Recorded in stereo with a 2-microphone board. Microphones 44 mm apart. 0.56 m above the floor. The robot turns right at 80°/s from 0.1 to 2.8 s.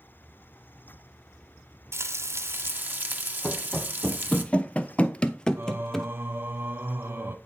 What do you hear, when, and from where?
1.9 s frying: 115° right, 1.2 m; by 4.4 s 45° right, 1.2 m
3.4 s running footsteps: 15° left (ahead or behind), 1.6 m; by 6.1 s 5° left (ahead or behind), 1.1 m
5.6 s singing: 60° right (ahead or behind), 0.8 m